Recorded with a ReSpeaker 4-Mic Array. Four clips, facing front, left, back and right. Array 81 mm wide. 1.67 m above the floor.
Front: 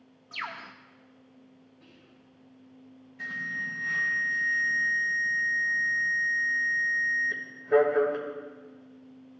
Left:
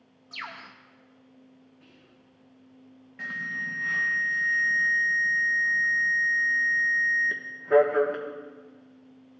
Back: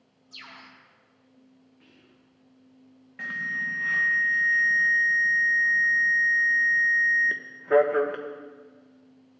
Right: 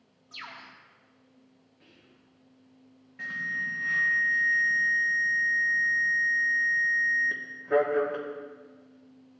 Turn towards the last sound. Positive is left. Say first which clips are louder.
# even, back 4 dB
turn(degrees=170)